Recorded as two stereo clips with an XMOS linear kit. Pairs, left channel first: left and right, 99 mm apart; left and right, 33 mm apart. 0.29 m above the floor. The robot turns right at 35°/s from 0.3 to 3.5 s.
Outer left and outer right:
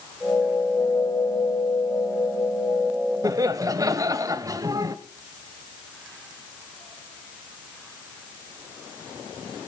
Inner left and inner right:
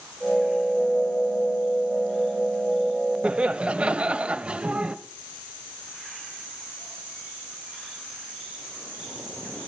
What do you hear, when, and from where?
3.2 s laughter: 35° right (ahead or behind), 1.1 m